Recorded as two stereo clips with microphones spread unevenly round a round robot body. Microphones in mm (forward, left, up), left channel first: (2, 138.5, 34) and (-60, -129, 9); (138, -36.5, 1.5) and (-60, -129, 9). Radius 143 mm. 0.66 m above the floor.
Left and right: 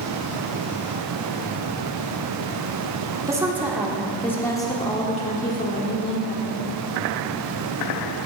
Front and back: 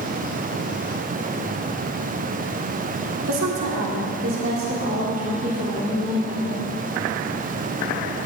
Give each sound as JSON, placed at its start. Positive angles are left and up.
{"t": 3.3, "sound": "a woman speaking", "azimuth_deg": 180, "distance_m": 2.0}